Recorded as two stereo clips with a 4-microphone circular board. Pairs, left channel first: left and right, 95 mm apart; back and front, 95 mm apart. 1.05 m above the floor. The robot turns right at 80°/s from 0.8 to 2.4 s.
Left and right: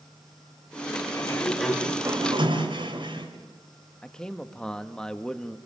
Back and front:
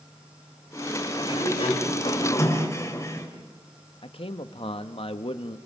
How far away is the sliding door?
About 4.5 m.